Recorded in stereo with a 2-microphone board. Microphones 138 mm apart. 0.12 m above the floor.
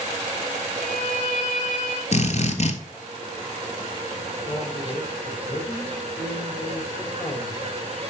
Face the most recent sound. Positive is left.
turn(degrees=30)  # may be behind; listen again after turning